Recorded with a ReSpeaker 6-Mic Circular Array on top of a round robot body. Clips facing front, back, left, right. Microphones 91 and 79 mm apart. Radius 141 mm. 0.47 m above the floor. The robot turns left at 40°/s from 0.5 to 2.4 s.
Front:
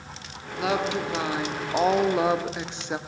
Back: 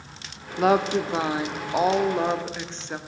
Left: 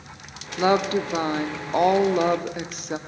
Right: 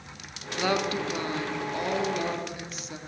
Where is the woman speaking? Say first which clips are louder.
Back 5 dB, left 7 dB; 150° left, 1.8 m; by 3.0 s 75° left, 1.8 m.